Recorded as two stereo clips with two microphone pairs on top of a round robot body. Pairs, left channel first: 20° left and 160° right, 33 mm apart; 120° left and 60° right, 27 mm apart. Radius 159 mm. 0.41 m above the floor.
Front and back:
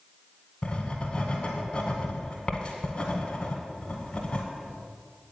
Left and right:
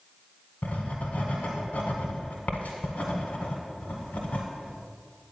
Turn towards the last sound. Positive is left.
turn(degrees=80)